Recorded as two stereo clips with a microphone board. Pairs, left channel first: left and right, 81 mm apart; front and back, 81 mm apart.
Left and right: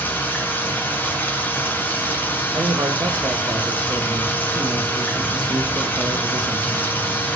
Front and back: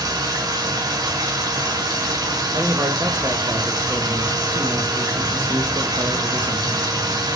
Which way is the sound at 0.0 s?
155° left.